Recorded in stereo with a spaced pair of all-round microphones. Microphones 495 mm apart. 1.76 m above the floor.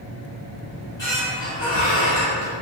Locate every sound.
0.7 s a squeak: 60° left (ahead or behind), 1.6 m